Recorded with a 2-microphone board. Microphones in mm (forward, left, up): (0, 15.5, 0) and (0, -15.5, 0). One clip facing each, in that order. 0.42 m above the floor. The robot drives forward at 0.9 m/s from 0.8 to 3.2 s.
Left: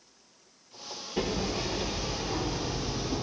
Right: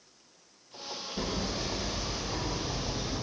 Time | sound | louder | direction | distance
1.2 | hammering | left 4 dB | 75° left (ahead or behind) | 3 m